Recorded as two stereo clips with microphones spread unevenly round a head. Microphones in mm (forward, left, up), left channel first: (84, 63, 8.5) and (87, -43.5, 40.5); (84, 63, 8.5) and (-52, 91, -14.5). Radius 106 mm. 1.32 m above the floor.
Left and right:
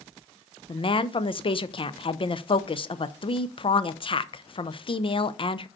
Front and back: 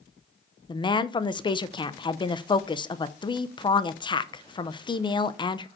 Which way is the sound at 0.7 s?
50° left.